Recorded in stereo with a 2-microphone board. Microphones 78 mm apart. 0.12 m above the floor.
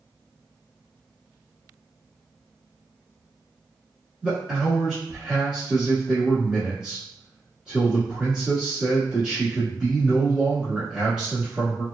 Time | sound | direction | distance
4.2 | a man speaking | 10° right (ahead or behind) | 1.2 m